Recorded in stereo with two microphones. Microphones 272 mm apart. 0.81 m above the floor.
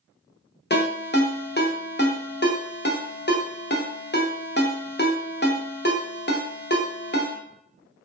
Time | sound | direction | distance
0.7 | a ringtone | 35° left (ahead or behind) | 0.6 m